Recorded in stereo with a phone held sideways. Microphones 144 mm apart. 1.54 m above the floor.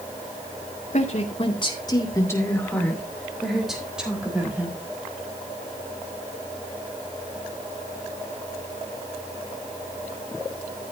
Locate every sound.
0.9 s a woman speaking: 55° left (ahead or behind), 2.5 m; by 4.8 s 10° right (ahead or behind), 5.5 m